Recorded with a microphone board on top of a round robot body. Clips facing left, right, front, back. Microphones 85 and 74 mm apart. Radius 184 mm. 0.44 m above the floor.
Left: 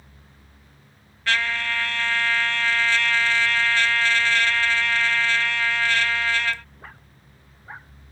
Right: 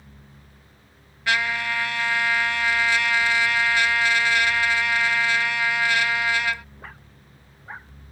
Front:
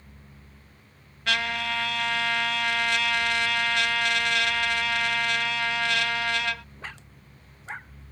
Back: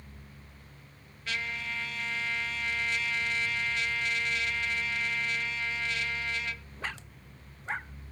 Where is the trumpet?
10° right.